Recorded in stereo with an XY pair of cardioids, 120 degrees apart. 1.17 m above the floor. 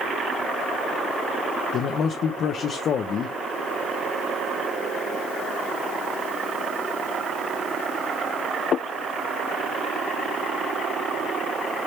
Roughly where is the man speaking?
Ahead left.